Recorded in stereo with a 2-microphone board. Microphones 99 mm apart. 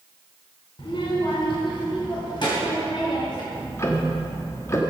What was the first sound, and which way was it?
A child speaking, 60° left (ahead or behind).